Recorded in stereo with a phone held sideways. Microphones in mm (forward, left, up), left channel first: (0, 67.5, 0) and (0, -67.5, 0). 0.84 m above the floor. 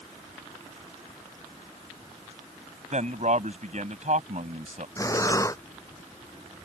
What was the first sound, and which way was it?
A man speaking, 60° right (ahead or behind).